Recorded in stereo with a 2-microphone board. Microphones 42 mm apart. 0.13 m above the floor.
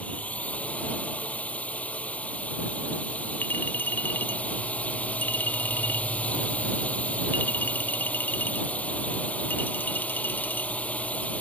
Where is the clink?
55° left (ahead or behind).